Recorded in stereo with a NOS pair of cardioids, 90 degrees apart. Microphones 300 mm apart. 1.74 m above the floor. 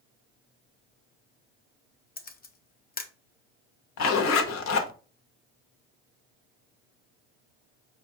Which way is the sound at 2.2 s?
35° left.